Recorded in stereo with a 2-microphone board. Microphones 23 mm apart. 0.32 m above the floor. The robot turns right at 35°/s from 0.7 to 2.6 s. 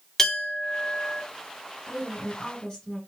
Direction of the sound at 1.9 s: 45° left (ahead or behind).